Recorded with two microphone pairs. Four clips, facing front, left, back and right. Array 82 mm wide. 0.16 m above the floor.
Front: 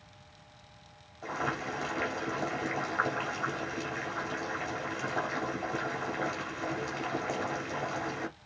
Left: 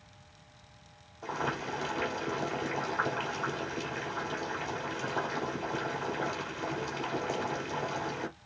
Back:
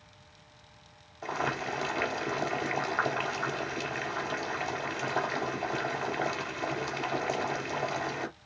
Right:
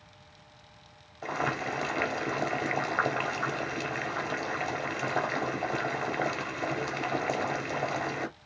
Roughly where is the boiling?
Behind right.